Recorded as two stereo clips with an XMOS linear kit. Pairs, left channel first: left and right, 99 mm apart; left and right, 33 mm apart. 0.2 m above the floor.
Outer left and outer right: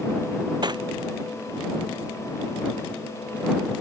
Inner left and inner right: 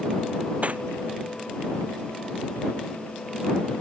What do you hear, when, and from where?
0.6 s cutlery clinking: 45° right (ahead or behind)